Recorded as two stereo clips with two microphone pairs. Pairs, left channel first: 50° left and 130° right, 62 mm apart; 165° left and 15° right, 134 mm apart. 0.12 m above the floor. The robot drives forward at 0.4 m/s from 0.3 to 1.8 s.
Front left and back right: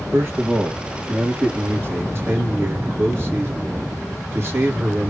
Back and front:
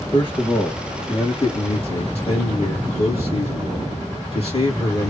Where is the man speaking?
165° right, 2.5 m; by 5.1 s 170° right, 3 m.